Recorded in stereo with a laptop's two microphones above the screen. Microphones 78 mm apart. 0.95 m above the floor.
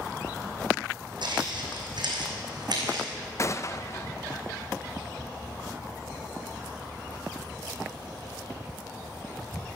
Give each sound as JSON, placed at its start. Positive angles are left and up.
{"t": 1.2, "sound": "footsteps", "side_deg": -70, "distance_m": 3.0}
{"t": 3.4, "sound": "a gunshot", "side_deg": 40, "distance_m": 0.5}